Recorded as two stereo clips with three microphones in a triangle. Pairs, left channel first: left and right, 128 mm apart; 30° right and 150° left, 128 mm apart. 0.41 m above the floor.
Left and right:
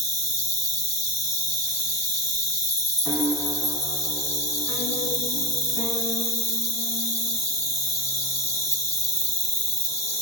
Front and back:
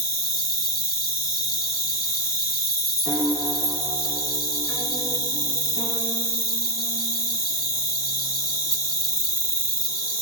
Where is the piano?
10° right, 1.8 m.